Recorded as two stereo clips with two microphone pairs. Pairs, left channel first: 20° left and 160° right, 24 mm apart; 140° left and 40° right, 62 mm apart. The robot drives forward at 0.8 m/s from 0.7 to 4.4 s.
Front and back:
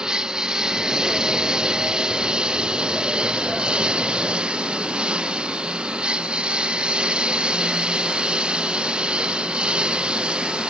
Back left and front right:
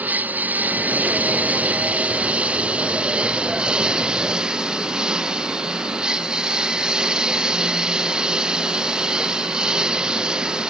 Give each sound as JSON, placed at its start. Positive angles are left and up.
{"t": 0.0, "sound": "a lawn mower", "azimuth_deg": -105}